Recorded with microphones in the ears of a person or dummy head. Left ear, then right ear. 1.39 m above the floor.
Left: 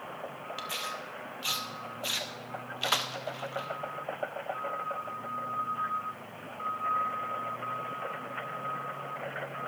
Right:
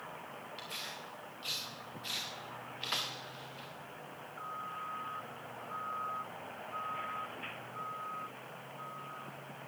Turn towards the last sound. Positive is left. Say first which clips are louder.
# left 8 dB
turn(degrees=35)  # may be behind; listen again after turning